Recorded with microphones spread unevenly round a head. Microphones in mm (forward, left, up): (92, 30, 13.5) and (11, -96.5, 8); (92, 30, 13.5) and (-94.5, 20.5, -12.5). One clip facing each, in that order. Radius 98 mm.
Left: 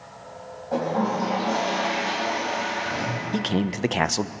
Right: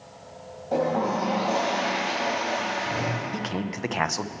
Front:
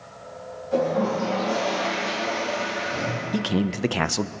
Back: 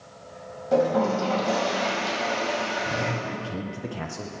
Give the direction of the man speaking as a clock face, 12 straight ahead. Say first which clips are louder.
Left 5 dB, front 9 dB; 12 o'clock.